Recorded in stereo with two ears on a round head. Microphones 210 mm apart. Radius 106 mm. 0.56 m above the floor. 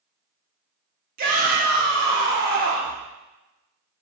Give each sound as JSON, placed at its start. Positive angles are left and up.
{"t": 1.2, "sound": "a shout", "side_deg": -40, "distance_m": 0.9}